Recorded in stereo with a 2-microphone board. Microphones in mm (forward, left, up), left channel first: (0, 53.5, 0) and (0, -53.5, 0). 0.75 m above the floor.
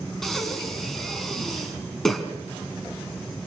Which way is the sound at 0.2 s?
5° left (ahead or behind).